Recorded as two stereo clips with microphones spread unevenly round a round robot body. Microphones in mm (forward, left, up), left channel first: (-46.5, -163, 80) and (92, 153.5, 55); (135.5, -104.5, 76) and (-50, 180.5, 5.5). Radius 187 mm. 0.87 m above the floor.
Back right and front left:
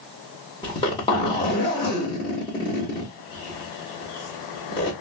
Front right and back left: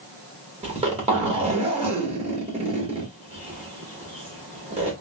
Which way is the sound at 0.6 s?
170° left.